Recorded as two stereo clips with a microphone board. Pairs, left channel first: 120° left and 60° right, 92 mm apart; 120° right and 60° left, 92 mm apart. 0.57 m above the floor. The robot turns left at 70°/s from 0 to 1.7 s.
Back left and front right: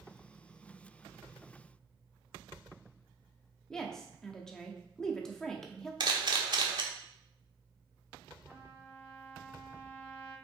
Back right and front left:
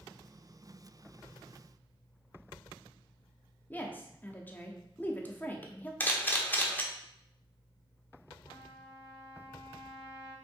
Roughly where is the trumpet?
Behind right.